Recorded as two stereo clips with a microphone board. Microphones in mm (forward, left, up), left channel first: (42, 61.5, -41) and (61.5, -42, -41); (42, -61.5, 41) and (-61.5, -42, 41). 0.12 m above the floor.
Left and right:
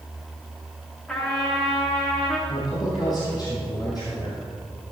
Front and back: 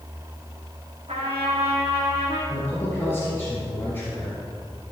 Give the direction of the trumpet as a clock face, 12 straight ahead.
6 o'clock.